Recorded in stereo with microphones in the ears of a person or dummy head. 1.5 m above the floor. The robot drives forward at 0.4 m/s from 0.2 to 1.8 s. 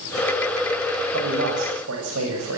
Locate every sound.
1.1 s a man speaking: 85° right, 7 m